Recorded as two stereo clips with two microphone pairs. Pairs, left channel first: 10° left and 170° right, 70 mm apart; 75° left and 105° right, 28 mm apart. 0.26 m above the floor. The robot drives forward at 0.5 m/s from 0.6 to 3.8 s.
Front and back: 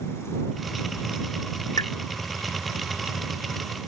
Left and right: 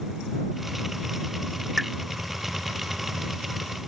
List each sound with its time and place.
1.8 s a pop: 20° right